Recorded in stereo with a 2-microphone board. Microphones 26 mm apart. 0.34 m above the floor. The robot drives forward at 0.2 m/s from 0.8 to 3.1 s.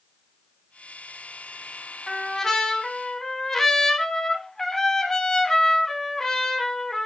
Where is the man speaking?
No man speaking in this recording.